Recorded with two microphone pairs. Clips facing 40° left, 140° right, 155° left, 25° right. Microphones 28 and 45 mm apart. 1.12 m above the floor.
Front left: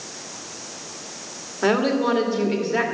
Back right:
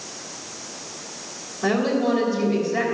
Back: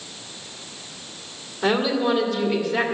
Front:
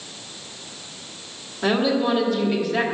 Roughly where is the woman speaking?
Ahead left.